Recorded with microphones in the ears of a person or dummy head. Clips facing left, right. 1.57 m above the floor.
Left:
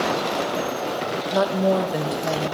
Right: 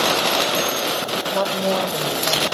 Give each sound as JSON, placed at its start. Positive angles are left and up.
{"t": 1.3, "sound": "a woman speaking", "side_deg": 15, "distance_m": 1.4}